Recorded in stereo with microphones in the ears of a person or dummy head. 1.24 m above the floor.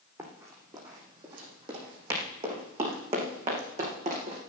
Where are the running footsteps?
25° right (ahead or behind), 4.5 m; by 4.4 s 45° right (ahead or behind), 5.5 m.